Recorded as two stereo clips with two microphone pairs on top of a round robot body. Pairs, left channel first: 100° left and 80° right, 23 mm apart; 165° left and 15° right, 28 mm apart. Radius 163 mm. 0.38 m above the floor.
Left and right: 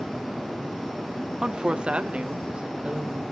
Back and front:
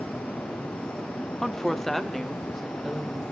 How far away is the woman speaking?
About 1.4 m.